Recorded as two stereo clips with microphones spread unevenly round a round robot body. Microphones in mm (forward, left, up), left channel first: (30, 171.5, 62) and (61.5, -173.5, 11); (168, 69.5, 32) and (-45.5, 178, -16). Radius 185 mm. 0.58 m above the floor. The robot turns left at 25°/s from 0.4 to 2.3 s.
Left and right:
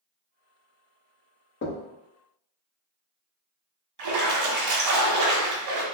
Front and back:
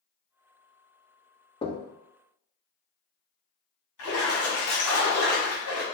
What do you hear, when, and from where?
1.6 s knocking: 45° left, 0.7 m; by 1.8 s 40° left, 0.7 m
4.0 s a splash: 65° right, 1.2 m